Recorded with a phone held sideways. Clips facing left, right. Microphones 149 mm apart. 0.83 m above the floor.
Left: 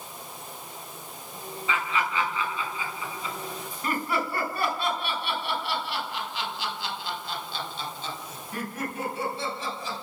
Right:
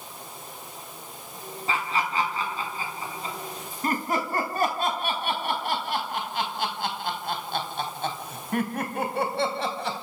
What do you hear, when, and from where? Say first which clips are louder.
1.7 s laughter: right 1 dB; 35° right (ahead or behind), 7 m; by 10.0 s 70° right (ahead or behind), 4.5 m